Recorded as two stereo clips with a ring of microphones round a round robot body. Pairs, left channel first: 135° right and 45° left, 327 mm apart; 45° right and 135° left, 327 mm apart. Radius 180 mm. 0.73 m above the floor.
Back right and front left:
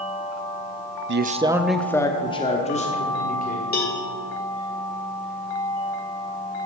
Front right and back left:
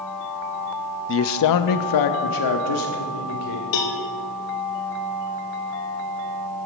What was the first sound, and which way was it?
A man speaking, straight ahead.